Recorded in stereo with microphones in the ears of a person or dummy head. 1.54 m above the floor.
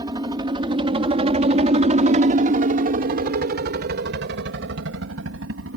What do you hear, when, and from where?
0.0 s a helicopter: 25° right (ahead or behind); by 5.8 s 65° right (ahead or behind)